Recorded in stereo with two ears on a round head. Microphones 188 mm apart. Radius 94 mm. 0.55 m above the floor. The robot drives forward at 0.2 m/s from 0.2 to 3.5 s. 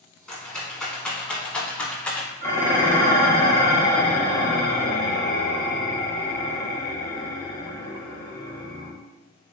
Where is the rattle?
5° left (ahead or behind), 0.8 m.